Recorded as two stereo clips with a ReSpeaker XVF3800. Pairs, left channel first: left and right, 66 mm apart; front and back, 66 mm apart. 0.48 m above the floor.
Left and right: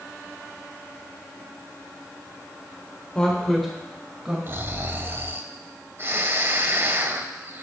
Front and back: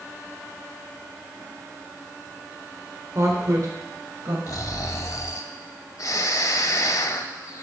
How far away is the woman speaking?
About 1.4 m.